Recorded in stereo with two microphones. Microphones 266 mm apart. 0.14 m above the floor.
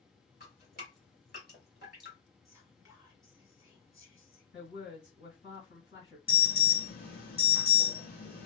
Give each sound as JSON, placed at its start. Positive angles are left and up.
{"t": 0.4, "sound": "dripping", "side_deg": 40, "distance_m": 1.8}
{"t": 2.5, "sound": "whispering", "side_deg": -15, "distance_m": 1.4}
{"t": 4.5, "sound": "a woman speaking", "side_deg": 40, "distance_m": 2.0}
{"t": 6.3, "sound": "an alarm", "side_deg": 40, "distance_m": 1.5}